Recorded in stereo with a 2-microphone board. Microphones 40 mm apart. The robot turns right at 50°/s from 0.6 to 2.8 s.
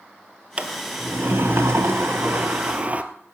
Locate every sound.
0.6 s a sliding door: 145° right, 1.1 m; by 3.0 s 35° right, 1.1 m